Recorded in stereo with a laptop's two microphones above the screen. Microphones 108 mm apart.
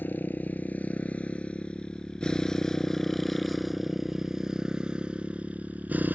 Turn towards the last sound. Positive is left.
turn(degrees=-15)  # may be behind; listen again after turning